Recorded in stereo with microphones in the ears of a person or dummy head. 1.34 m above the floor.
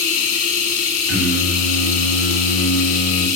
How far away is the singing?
About 7.5 m.